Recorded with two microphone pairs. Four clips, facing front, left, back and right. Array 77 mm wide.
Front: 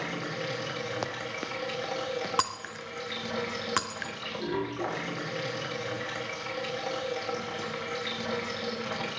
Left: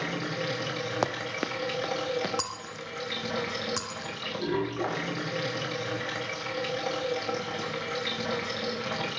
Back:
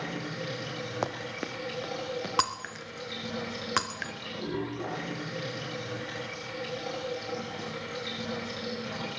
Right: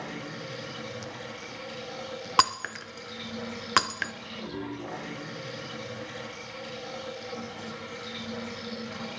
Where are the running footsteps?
110° left, 1.2 m; by 2.3 s 80° left, 2.5 m.